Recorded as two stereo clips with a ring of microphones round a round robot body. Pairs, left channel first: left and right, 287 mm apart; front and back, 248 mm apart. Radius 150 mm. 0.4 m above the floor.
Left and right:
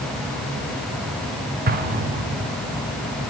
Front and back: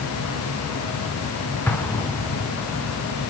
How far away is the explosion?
About 1.4 m.